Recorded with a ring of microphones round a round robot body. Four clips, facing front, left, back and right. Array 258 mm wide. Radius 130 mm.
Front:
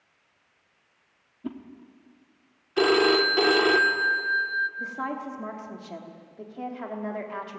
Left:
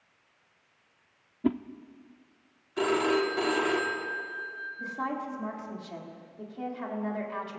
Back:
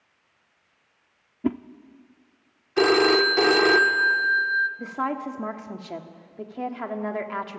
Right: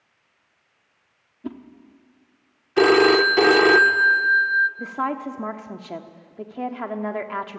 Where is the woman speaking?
120° right, 1.5 m.